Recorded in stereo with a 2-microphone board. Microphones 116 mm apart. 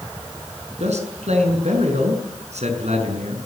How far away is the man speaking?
About 7 m.